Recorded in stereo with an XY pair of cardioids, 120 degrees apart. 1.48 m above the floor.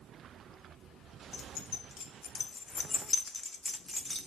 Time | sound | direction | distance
1.3 | keys jangling | 60° left | 2 m